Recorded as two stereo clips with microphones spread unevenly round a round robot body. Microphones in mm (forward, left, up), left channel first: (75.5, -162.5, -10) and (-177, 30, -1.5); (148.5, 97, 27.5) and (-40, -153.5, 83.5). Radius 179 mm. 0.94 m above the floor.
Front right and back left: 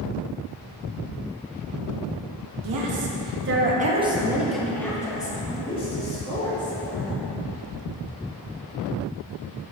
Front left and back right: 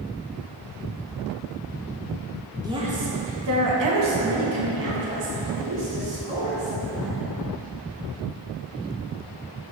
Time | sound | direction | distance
2.6 | a woman speaking | 150° left | 1.6 m